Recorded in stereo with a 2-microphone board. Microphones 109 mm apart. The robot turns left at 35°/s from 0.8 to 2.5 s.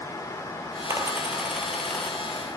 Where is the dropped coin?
25° right (ahead or behind), 0.8 m; by 2.2 s 20° left (ahead or behind), 0.8 m.